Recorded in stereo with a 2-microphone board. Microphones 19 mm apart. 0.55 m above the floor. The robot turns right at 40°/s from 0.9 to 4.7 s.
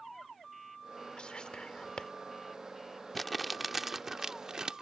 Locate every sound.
1.2 s whispering: 60° left (ahead or behind); by 2.1 s 50° left (ahead or behind)
3.1 s crumpling: 5° left (ahead or behind); by 4.8 s 40° right (ahead or behind)